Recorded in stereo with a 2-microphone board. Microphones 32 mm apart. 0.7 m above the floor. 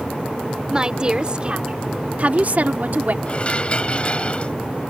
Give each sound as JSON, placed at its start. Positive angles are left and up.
{"t": 0.7, "sound": "a woman speaking", "side_deg": -25}
{"t": 3.3, "sound": "dishes clattering", "side_deg": 35}